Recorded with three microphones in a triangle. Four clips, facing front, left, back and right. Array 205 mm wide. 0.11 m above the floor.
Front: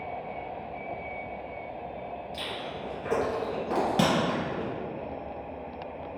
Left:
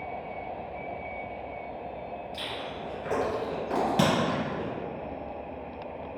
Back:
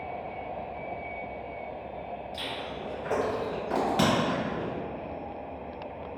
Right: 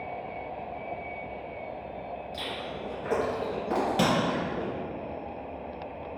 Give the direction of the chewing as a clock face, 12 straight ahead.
1 o'clock.